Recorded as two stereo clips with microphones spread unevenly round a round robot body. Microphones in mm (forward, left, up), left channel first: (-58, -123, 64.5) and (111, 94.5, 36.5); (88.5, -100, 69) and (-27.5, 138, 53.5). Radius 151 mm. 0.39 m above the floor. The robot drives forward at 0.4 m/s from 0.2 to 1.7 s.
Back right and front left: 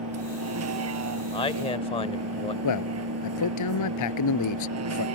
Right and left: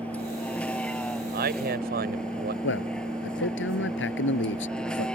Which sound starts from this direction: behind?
A man speaking, at 1.3 s.